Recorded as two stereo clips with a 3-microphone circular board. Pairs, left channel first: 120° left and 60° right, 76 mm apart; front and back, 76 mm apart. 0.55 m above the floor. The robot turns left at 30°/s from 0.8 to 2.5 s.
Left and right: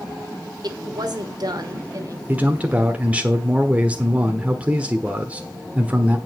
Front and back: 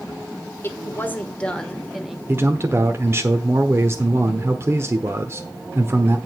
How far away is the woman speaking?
About 1.5 m.